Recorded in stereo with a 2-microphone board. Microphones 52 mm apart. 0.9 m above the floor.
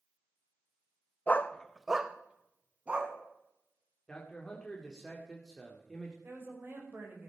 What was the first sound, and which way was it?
A dog barking, 35° left (ahead or behind).